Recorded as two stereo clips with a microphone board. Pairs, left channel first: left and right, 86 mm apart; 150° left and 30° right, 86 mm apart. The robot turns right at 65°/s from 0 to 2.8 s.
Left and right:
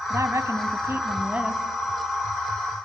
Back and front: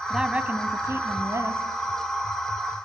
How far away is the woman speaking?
About 1.1 m.